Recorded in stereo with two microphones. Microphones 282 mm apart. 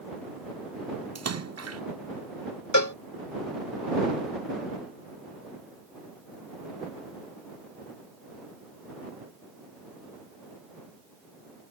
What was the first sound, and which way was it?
A splash, 60° right (ahead or behind).